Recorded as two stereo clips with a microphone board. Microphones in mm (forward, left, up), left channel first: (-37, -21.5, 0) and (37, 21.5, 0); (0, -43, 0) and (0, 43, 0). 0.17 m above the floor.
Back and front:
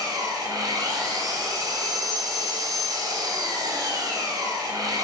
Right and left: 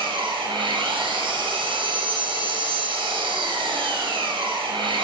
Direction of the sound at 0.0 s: 75° left.